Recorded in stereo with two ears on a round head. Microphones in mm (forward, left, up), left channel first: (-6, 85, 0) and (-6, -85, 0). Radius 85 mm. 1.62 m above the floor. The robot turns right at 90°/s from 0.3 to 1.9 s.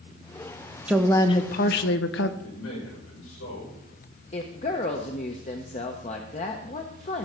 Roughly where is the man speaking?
Left.